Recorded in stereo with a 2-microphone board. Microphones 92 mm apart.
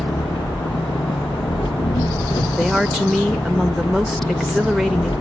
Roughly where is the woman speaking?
Centre.